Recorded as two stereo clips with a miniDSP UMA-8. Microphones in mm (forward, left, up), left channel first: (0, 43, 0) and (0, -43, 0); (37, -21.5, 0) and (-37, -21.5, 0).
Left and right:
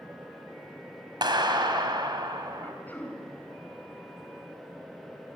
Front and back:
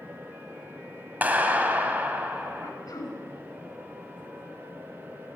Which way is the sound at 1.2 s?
115° right.